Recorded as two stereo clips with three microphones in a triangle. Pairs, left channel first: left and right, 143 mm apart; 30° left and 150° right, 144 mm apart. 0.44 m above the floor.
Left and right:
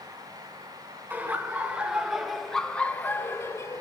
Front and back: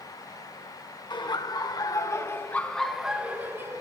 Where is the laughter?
20° right, 1.8 m; by 3.8 s 150° left, 1.4 m.